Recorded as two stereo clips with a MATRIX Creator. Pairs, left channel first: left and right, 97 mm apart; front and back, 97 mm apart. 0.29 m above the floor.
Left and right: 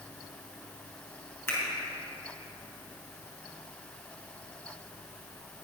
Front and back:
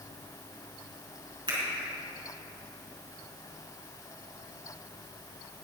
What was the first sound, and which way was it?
A finger snap, 160° left.